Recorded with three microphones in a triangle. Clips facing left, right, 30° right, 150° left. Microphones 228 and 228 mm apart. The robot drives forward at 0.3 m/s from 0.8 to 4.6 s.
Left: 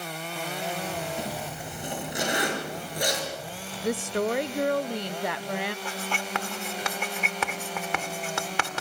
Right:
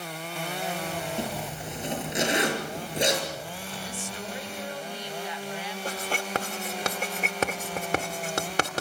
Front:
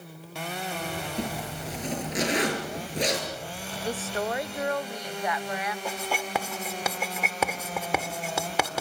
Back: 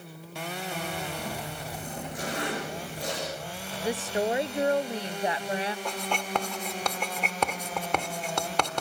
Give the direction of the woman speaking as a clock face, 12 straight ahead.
10 o'clock.